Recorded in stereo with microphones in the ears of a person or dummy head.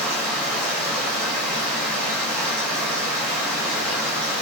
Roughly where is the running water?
Centre.